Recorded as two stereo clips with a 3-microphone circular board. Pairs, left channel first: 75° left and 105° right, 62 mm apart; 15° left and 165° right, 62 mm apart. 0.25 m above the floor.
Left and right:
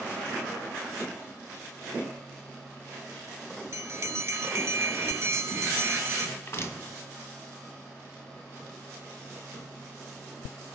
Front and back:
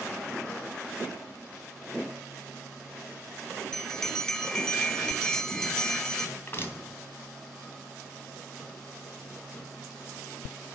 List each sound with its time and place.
3.7 s a bell: 65° right, 0.9 m
6.4 s crushing: 50° left, 2 m